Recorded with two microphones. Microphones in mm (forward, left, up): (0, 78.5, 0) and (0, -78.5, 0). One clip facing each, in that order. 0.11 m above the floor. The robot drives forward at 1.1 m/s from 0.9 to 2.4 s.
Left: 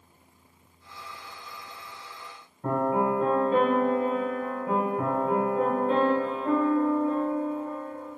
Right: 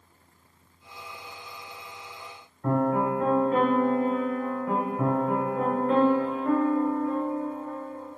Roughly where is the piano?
Left.